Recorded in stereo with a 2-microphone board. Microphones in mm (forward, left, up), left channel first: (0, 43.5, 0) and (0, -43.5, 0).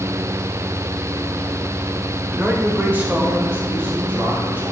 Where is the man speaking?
20° right (ahead or behind), 1.0 m.